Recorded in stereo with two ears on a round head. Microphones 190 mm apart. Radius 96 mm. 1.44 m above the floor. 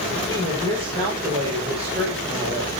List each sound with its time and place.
0.3 s a woman speaking: 30° right (ahead or behind), 5.5 m